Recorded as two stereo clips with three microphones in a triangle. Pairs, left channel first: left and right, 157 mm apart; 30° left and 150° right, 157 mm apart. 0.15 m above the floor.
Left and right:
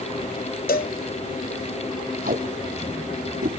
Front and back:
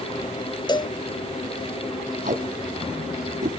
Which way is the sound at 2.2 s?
115° right.